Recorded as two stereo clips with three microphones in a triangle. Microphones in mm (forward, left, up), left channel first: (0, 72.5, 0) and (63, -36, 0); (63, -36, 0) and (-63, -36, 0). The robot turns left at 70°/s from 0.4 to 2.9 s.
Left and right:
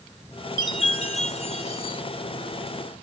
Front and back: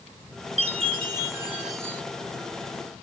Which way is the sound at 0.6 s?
170° left.